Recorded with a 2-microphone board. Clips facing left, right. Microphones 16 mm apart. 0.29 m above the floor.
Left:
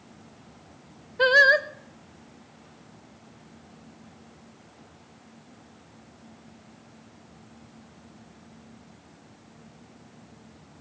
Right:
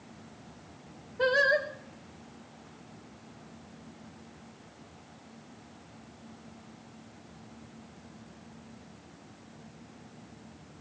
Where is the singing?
50° left (ahead or behind), 0.6 m.